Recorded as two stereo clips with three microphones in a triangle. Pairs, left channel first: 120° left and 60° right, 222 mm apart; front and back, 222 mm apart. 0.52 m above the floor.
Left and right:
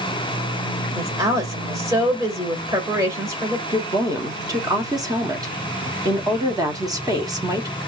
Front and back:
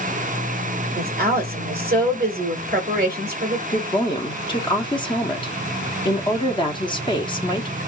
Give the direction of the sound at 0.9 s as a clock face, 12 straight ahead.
4 o'clock.